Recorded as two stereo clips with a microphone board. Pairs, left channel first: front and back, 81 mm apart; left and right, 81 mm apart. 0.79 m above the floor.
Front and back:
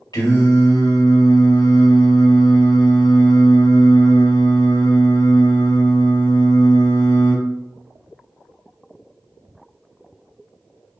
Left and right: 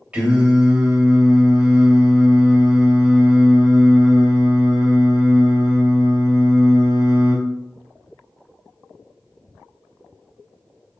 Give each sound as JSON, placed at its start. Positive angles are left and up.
{"t": 0.1, "sound": "singing", "azimuth_deg": -15, "distance_m": 2.5}